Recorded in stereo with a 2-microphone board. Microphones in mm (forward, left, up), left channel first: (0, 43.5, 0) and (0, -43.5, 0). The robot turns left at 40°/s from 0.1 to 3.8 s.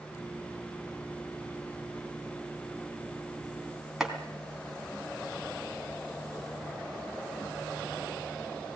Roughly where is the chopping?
Centre.